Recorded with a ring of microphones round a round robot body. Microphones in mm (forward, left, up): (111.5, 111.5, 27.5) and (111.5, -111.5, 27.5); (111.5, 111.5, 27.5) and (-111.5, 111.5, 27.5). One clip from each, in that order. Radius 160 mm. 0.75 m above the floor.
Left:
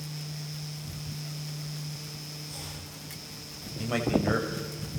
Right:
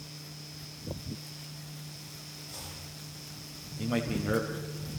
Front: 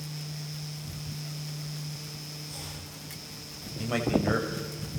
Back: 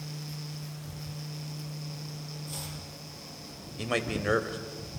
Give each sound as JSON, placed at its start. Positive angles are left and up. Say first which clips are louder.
{"t": 2.5, "sound": "chopping", "louder": "left 1 dB, back 3 dB", "azimuth_deg": 160, "distance_m": 9.5}
{"t": 3.8, "sound": "a man speaking", "louder": "left 5 dB, front 2 dB", "azimuth_deg": 155, "distance_m": 3.5}